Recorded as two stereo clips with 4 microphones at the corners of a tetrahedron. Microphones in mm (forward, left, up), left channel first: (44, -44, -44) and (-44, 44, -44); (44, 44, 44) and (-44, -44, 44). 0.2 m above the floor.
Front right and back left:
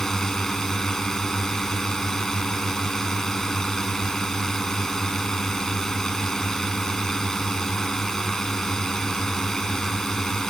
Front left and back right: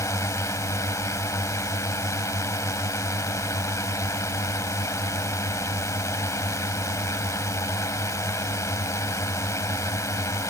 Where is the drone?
35° left.